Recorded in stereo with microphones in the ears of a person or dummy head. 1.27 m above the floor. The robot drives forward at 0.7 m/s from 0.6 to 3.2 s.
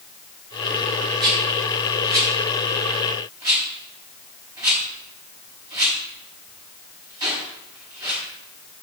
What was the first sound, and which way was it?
A rattle, 25° right (ahead or behind).